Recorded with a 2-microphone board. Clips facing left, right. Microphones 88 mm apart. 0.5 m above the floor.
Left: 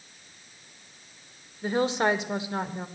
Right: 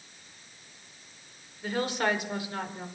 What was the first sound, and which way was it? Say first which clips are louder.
A woman speaking: left 4 dB; 25° left (ahead or behind).